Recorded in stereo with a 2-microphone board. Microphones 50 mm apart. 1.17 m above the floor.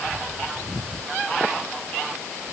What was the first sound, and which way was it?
Only background noise.